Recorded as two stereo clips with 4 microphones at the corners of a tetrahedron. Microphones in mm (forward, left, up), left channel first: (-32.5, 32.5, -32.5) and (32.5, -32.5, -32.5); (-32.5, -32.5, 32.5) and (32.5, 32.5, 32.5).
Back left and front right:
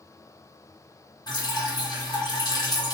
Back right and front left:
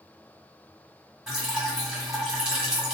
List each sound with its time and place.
1.3 s dripping: 125° left, 1.5 m